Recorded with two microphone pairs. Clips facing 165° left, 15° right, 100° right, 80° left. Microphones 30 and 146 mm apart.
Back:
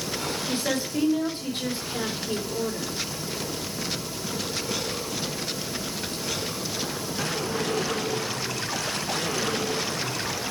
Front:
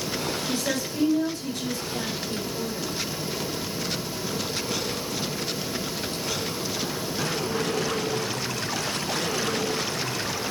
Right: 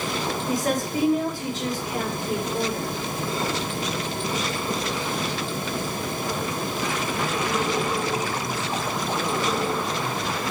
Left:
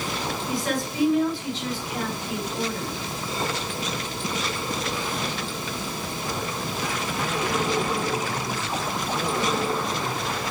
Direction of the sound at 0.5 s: 145° right.